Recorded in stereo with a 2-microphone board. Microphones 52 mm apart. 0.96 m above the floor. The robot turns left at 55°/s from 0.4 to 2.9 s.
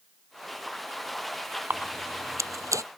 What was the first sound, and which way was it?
A camera shutter, 40° right (ahead or behind).